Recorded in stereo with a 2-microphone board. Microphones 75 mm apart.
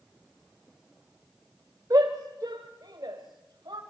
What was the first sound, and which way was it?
A shout, 55° right (ahead or behind).